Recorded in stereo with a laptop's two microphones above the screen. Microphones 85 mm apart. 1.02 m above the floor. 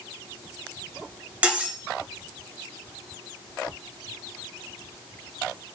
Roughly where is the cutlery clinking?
Centre.